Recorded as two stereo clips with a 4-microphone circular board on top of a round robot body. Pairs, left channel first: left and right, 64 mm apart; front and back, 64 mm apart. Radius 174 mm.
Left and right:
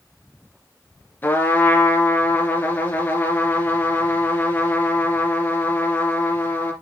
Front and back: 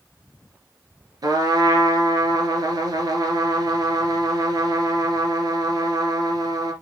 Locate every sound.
1.2 s a trumpet: 155° left, 2.5 m